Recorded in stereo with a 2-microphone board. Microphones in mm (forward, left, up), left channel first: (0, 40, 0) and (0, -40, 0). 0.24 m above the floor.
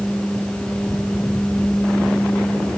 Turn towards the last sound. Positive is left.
No sound to turn to.